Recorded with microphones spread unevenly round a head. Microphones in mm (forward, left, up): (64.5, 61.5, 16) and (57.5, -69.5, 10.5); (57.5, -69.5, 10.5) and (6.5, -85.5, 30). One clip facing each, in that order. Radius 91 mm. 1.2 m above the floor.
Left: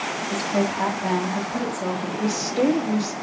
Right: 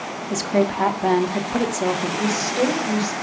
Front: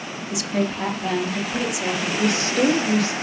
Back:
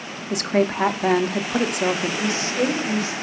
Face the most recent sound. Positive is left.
turn(degrees=5)